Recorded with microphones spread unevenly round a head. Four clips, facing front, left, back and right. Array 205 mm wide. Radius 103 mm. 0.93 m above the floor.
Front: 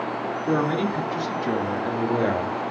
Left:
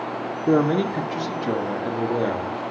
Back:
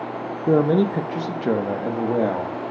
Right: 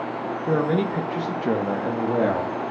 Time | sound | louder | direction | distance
0.5 | a man speaking | left 3 dB, back 6 dB | 155° left | 1.0 m